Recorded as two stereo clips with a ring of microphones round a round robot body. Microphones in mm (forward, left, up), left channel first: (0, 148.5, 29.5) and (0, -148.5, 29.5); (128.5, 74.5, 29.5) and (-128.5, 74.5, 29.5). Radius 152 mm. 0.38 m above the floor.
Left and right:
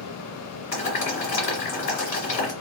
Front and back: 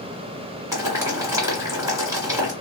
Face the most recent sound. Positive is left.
turn(degrees=110)